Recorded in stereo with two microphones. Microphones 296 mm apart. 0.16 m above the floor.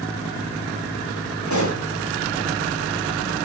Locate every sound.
1.5 s a pop: 75° left (ahead or behind), 4 m